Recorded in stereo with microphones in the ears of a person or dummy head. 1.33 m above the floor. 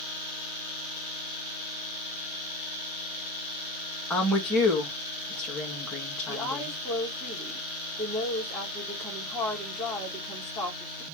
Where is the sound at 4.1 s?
Centre (ahead or behind), 2 m.